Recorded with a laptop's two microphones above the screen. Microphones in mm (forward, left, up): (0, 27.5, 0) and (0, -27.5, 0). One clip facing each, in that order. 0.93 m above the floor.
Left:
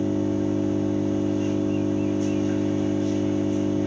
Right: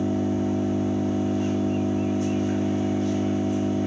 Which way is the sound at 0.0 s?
55° right (ahead or behind).